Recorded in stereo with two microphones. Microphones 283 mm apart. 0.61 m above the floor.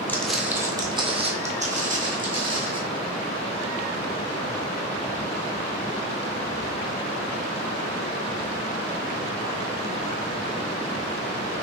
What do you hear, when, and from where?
0.1 s footsteps: 10° left (ahead or behind), 0.6 m; by 2.8 s 30° right (ahead or behind), 1.7 m